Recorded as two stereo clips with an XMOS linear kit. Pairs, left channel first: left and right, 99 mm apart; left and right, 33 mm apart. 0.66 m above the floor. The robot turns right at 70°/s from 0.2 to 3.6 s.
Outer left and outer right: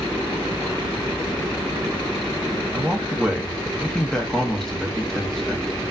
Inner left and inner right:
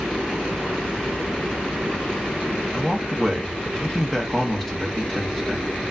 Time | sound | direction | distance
2.7 | a man speaking | 20° right (ahead or behind) | 0.6 m